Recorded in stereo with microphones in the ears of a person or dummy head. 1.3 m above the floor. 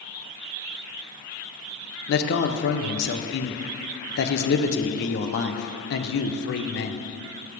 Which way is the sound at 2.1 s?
60° left (ahead or behind).